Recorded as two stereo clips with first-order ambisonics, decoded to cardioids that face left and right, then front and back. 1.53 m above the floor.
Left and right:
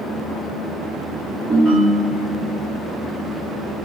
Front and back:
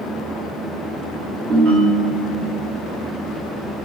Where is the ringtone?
165° right, 1.8 m.